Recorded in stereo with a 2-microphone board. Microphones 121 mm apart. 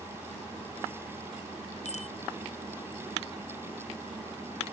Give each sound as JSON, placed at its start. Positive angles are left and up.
{"t": 1.9, "sound": "a bicycle bell", "side_deg": 70}